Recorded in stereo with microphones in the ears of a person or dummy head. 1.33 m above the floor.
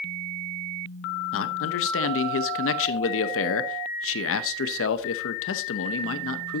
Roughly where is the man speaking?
Left.